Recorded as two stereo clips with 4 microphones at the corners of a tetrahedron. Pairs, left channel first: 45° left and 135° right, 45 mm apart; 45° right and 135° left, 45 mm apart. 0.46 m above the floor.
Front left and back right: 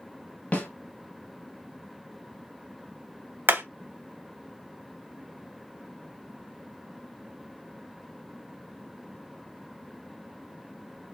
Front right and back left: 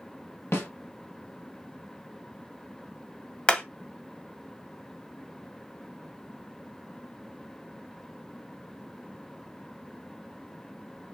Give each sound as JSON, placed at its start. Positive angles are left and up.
{"t": 0.5, "sound": "a snare drum", "azimuth_deg": -15, "distance_m": 1.8}
{"t": 3.5, "sound": "hammering", "azimuth_deg": -105, "distance_m": 0.9}